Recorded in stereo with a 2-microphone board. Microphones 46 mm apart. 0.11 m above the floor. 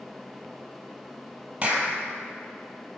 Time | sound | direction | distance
1.6 | a clap | 25° right (ahead or behind) | 2 m